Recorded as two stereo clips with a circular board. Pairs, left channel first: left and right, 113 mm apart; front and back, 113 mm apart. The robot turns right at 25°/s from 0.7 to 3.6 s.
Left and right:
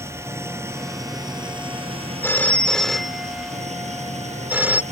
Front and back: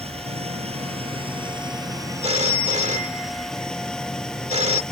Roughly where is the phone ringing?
Behind.